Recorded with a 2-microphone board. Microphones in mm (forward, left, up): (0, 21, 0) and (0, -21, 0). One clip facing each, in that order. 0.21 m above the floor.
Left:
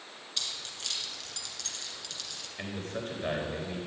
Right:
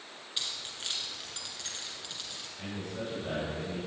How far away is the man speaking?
About 3.5 m.